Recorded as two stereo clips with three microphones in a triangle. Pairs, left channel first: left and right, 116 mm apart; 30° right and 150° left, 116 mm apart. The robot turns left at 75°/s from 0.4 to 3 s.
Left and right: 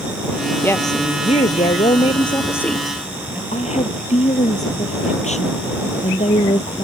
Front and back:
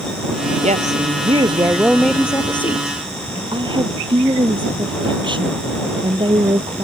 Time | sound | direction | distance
0.6 | a woman speaking | 165° left | ?
3.5 | a woman speaking | 105° left | ?